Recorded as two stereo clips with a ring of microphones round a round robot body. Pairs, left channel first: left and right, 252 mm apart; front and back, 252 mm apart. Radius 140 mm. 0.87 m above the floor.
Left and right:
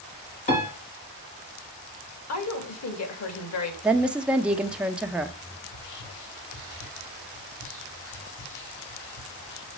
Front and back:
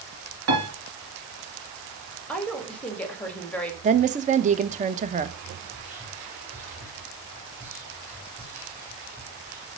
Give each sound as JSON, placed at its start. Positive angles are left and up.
{"t": 0.5, "sound": "a piano", "azimuth_deg": 155, "distance_m": 2.5}
{"t": 2.3, "sound": "a woman speaking", "azimuth_deg": 85, "distance_m": 2.0}
{"t": 3.8, "sound": "a woman speaking", "azimuth_deg": -170, "distance_m": 0.6}
{"t": 5.7, "sound": "whispering", "azimuth_deg": 100, "distance_m": 5.0}